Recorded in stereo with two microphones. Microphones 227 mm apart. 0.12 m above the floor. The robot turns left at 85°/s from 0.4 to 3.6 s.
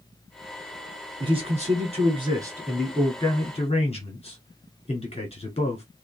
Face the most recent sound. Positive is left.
turn(degrees=25)  # may be behind; listen again after turning